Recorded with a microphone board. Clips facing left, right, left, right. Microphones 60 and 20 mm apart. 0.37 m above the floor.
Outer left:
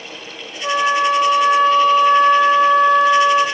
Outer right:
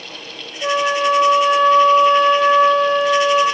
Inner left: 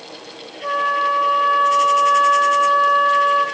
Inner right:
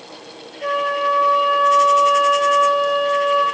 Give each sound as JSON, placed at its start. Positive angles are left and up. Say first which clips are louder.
{"t": 0.6, "sound": "a flute", "louder": "outer left 1 dB, inner left 1 dB", "side_deg": -75, "distance_m": 5.5}